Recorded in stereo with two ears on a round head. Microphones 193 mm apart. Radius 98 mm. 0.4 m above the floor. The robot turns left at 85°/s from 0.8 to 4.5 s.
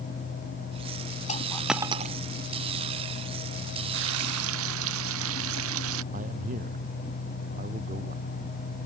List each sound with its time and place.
1.3 s a dropped coin: 30° left (ahead or behind); by 2.2 s 40° right (ahead or behind)
3.9 s frying: 55° right; by 6.0 s 100° right
6.1 s a man speaking: 35° right (ahead or behind)